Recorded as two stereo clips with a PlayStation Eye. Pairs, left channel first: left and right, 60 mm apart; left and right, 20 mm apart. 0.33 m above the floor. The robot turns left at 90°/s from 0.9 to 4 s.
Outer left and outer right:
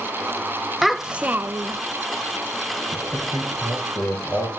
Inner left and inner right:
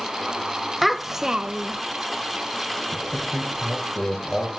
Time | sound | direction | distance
0.8 | a child speaking | straight ahead | 0.7 m
2.9 | a man speaking | 40° right (ahead or behind) | 5.5 m